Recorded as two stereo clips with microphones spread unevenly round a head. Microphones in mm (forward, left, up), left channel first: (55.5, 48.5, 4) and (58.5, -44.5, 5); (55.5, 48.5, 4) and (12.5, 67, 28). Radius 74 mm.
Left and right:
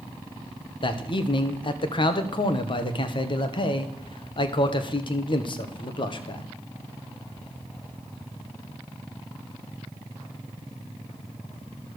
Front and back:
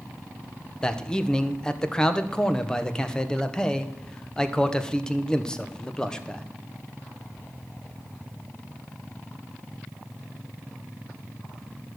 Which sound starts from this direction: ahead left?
A man speaking, at 0.8 s.